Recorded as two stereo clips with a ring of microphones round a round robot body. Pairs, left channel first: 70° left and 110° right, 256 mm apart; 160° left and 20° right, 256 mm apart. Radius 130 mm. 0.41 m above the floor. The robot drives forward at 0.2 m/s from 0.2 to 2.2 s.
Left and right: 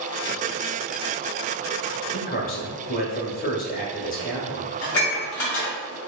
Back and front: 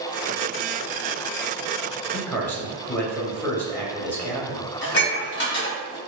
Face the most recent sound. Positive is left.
turn(degrees=100)